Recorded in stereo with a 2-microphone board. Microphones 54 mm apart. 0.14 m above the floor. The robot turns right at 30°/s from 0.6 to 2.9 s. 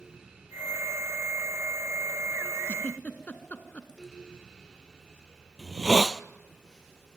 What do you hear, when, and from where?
2.7 s a giggle: 30° left (ahead or behind), 1.5 m
5.6 s a hiss: 5° right (ahead or behind), 0.6 m